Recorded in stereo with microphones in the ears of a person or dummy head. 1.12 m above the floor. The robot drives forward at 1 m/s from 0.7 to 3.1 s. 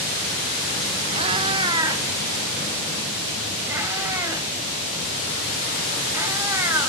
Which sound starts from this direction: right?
A cat meowing, at 1.1 s.